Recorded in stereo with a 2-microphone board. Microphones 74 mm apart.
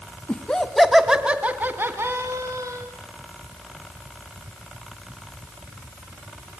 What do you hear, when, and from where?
0.3 s laughter: 15° left (ahead or behind), 1.7 m; by 2.9 s 50° right (ahead or behind), 2.5 m